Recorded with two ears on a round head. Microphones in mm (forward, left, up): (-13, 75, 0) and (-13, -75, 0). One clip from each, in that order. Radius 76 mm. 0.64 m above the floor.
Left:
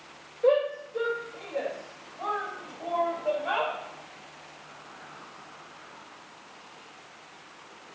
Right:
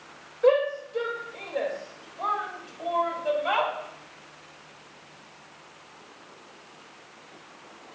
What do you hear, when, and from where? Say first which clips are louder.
0.4 s a shout: right 2 dB; 40° right (ahead or behind), 3 m; by 3.7 s 65° right (ahead or behind), 4.5 m